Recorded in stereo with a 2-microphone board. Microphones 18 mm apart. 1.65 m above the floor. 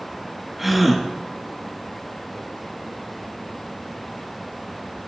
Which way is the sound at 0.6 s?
10° right (ahead or behind).